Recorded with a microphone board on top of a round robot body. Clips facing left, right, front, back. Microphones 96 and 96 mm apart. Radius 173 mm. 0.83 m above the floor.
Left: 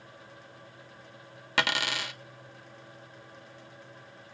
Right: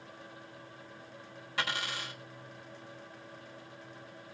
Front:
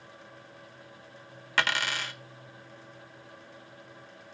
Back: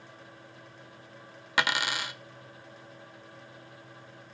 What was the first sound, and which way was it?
A dropped coin, 105° left.